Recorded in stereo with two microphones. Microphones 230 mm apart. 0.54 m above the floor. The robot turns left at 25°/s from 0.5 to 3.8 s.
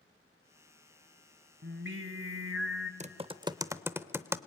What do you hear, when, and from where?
1.6 s singing: 55° right, 0.9 m; by 2.9 s 85° right, 0.9 m
3.0 s typing on a keyboard: 30° right (ahead or behind), 0.5 m; by 4.4 s 10° right (ahead or behind), 0.5 m